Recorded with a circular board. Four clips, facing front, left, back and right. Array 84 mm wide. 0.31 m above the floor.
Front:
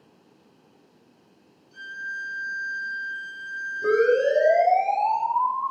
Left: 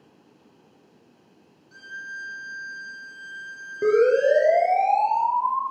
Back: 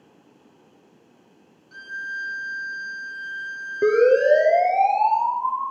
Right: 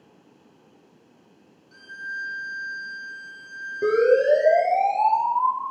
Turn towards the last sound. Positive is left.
turn(degrees=160)